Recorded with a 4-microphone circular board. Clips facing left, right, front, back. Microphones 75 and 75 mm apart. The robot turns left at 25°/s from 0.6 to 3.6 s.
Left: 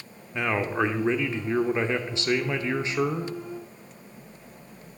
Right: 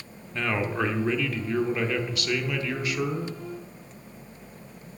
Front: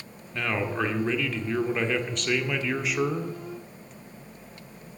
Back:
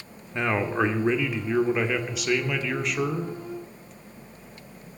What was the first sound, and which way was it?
A man speaking, 140° left.